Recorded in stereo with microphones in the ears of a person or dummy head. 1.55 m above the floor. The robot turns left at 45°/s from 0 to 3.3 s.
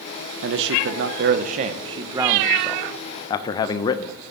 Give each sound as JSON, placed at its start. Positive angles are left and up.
{"t": 0.4, "sound": "a man speaking", "azimuth_deg": -75, "distance_m": 0.8}